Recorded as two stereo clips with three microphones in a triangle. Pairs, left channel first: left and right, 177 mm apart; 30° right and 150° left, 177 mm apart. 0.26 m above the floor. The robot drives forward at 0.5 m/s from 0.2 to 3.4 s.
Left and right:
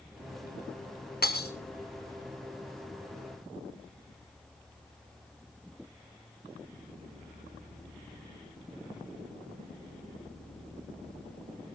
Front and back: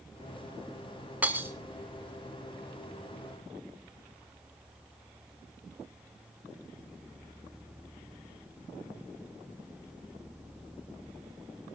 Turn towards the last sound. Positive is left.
turn(degrees=100)